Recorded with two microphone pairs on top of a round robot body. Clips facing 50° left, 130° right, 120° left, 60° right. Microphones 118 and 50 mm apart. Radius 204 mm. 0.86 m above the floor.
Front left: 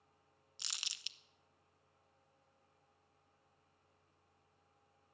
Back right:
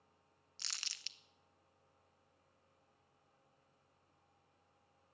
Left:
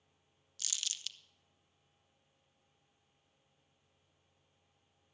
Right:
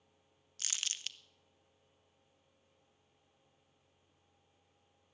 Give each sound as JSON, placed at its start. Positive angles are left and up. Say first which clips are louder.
{"t": 0.6, "sound": "crumpling", "louder": "front left 1 dB, right 2 dB", "azimuth_deg": -20, "distance_m": 1.0}